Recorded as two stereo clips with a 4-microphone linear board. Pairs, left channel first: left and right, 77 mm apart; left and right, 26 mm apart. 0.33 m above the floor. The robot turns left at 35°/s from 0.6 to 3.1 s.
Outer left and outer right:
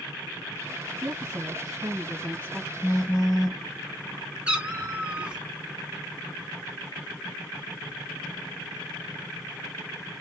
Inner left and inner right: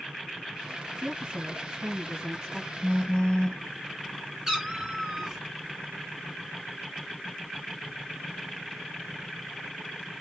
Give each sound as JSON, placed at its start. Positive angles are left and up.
{"t": 1.0, "sound": "a woman speaking", "azimuth_deg": -100, "distance_m": 1.7}
{"t": 2.8, "sound": "a phone buzzing", "side_deg": 50, "distance_m": 1.1}
{"t": 4.5, "sound": "a cat meowing", "side_deg": -15, "distance_m": 1.3}